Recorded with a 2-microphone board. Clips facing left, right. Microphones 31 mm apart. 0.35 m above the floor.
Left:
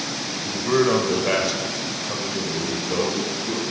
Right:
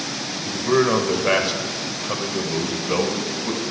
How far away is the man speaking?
About 1.6 m.